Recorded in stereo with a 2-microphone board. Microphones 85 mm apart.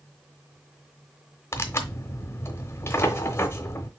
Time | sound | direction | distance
1.5 | tearing paper | 30° left (ahead or behind) | 0.8 m